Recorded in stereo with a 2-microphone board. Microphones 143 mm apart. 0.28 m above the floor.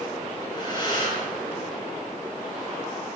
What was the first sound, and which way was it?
Breathing, 35° left (ahead or behind).